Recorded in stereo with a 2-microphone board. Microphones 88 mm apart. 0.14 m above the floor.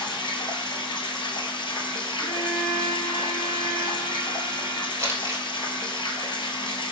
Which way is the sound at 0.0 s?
65° left (ahead or behind).